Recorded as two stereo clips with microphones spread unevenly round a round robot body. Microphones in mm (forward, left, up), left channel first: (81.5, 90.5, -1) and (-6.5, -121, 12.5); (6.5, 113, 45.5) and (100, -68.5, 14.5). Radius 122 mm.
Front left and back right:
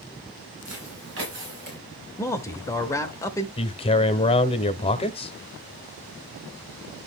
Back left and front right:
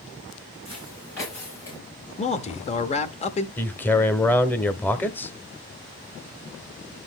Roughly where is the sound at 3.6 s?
Ahead left.